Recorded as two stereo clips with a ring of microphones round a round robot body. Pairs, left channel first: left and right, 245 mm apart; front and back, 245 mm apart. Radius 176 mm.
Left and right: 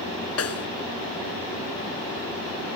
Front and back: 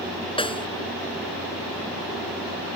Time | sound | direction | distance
0.4 | a snare drum | 70° left | ?